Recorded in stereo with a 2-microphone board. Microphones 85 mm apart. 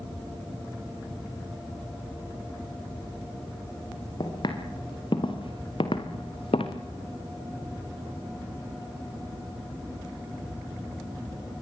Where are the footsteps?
60° left (ahead or behind), 6 m; by 6.8 s 80° left, 3 m.